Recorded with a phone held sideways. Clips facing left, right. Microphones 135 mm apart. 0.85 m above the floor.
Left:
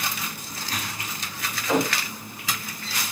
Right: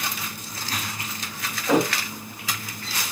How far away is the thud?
About 1.5 m.